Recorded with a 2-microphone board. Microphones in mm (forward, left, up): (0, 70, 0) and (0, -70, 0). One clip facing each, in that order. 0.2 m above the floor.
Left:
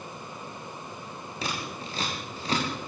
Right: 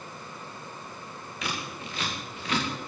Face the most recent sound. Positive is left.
turn(degrees=35)  # may be behind; listen again after turning